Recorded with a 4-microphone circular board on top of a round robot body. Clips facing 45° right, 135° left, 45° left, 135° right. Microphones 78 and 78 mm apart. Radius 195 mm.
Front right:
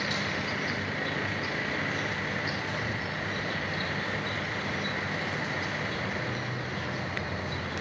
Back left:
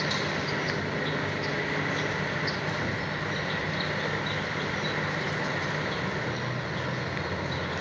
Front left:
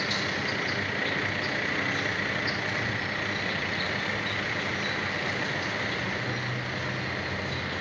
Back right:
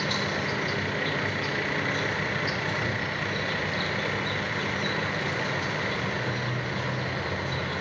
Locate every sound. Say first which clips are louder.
0.0 s an insect: back left 2 dB, back right 2 dB; 170° left, 2.5 m